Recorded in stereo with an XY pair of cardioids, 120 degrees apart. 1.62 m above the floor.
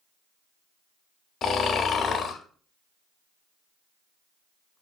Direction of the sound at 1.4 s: 50° left.